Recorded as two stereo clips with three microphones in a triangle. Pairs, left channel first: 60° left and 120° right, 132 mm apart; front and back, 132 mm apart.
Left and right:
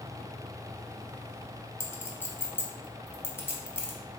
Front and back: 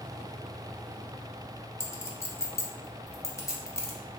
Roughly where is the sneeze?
No sneeze in this recording.